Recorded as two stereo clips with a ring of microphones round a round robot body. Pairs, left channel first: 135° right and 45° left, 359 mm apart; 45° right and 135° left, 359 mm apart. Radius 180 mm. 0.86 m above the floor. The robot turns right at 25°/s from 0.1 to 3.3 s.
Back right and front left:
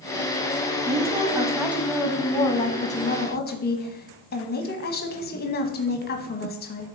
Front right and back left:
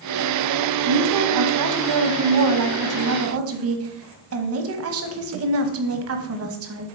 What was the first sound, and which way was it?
A woman speaking, 110° left.